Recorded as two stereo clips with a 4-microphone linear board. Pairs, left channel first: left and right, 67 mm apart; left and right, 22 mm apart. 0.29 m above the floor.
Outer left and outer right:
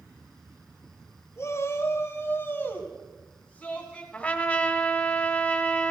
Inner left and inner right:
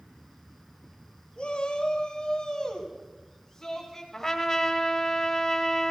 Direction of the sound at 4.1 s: 20° left (ahead or behind).